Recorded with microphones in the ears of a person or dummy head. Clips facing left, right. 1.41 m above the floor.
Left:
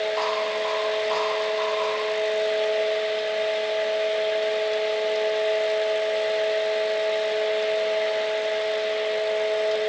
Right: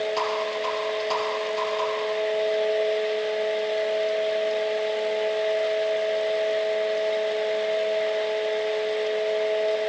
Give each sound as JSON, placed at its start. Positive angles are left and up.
{"t": 0.2, "sound": "a rattle", "side_deg": -65, "distance_m": 8.0}